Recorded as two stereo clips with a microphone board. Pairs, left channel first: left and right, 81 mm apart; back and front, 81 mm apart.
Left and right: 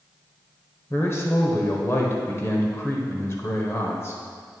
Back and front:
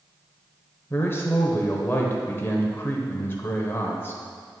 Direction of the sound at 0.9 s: 130° left.